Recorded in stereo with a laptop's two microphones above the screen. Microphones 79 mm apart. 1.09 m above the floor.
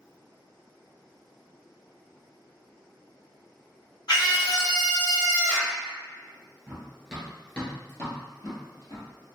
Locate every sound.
4.1 s a scream: 65° left (ahead or behind), 1.6 m; by 5.8 s 25° left (ahead or behind), 1.1 m
6.7 s running footsteps: 20° right (ahead or behind), 1.1 m; by 9.1 s 50° left (ahead or behind), 1.6 m